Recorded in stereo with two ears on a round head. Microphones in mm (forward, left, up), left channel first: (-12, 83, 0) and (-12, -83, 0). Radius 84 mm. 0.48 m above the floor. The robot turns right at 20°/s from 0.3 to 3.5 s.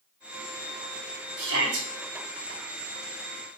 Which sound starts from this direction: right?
A shout, at 1.4 s.